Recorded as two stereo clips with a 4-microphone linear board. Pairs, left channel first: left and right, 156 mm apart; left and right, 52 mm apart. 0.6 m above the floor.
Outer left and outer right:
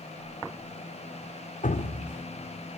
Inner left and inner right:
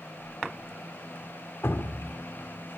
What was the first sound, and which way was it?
Dripping, 60° left (ahead or behind).